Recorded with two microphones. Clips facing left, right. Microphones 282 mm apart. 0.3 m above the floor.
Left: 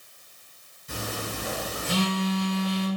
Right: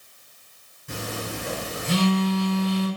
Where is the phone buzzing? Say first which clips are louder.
Right 2 dB; 75° right (ahead or behind), 2.0 m.